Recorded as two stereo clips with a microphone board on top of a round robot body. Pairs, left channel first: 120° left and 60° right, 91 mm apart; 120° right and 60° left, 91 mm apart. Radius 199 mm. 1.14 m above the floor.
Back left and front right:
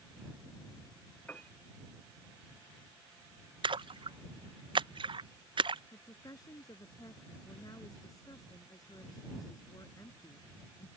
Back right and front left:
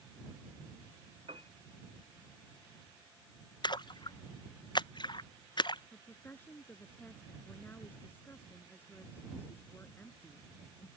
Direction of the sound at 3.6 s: 85° right.